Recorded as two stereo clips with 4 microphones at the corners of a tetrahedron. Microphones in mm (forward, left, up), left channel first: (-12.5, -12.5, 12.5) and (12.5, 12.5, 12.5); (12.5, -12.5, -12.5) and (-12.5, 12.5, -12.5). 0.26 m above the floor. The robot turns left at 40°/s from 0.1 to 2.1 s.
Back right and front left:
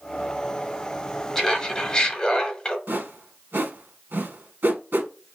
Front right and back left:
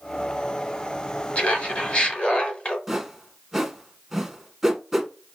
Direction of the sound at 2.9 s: 55° left.